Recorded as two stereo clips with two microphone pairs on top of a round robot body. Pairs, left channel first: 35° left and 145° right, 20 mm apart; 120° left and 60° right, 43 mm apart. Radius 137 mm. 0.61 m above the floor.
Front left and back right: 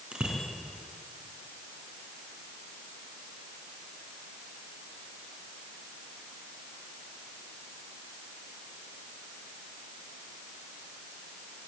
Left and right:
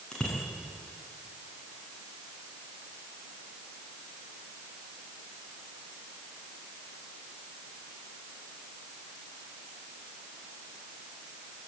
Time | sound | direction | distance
0.1 | a bicycle bell | 170° right | 5.5 m